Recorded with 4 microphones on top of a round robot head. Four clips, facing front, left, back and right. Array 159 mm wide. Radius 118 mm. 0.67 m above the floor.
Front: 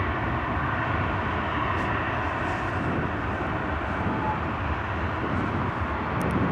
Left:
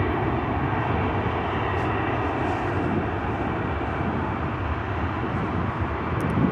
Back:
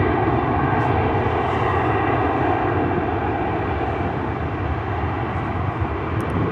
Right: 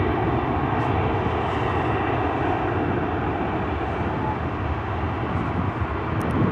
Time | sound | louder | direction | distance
0.0 | an aircraft | right 2 dB, back 9 dB | 170° right | ?